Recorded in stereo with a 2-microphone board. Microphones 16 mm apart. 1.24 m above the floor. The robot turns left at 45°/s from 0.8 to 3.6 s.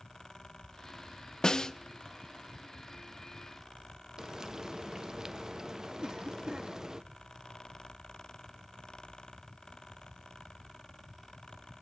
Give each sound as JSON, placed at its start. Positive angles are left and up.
{"t": 1.4, "sound": "a snare drum", "side_deg": 40, "distance_m": 0.6}
{"t": 4.2, "sound": "frying", "side_deg": -40, "distance_m": 0.7}
{"t": 6.0, "sound": "a cough", "side_deg": -55, "distance_m": 2.0}